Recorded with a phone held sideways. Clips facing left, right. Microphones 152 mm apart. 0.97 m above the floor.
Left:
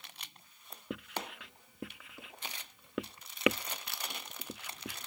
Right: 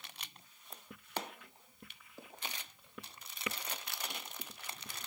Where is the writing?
80° left.